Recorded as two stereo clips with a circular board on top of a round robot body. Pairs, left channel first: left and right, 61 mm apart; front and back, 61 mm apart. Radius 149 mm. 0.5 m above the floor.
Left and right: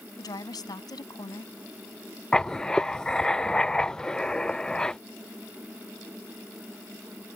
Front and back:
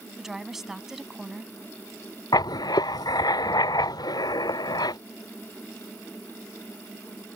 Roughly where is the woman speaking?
Left.